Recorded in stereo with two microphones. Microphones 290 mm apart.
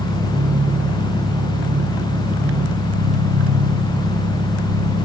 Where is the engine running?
80° right, 7.5 m.